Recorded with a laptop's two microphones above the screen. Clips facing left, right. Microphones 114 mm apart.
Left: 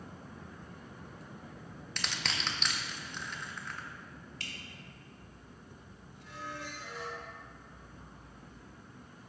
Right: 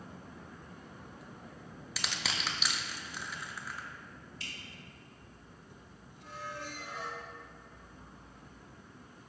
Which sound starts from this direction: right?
A squeak, at 6.2 s.